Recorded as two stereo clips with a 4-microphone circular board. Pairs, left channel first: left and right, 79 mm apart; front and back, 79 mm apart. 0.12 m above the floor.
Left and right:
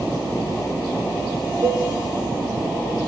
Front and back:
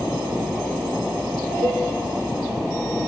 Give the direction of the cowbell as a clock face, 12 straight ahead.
5 o'clock.